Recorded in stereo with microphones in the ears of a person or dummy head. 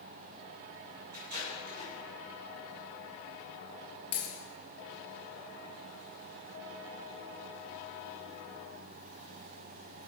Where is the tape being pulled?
45° right (ahead or behind), 3 m.